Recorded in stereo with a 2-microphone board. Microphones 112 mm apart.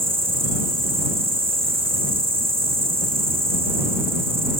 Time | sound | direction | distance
0.0 | an insect | 55° right (ahead or behind) | ?